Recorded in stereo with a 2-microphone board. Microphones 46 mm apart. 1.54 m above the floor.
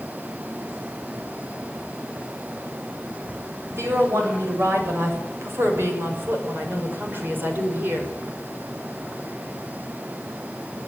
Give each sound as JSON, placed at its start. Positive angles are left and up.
{"t": 3.7, "sound": "a woman speaking", "side_deg": -75, "distance_m": 8.0}